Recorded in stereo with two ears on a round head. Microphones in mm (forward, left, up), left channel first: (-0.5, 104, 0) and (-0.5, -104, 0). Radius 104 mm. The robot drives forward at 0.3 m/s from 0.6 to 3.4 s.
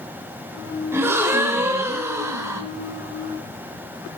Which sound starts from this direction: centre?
A gasp, at 0.9 s.